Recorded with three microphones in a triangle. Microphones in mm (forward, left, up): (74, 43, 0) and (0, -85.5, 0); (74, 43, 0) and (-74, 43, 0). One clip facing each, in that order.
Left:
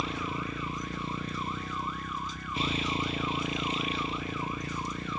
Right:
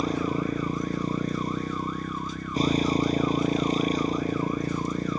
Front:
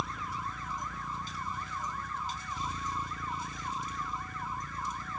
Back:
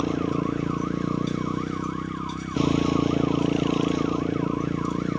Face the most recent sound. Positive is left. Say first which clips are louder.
# right 8 dB, back 15 dB
turn(degrees=-170)